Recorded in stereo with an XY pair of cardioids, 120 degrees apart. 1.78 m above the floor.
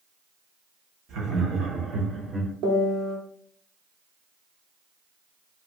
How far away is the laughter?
About 1.3 m.